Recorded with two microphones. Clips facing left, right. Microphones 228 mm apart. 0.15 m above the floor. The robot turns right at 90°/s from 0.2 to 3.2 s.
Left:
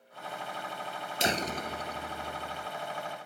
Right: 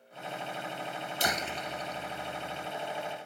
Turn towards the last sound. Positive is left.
turn(degrees=-155)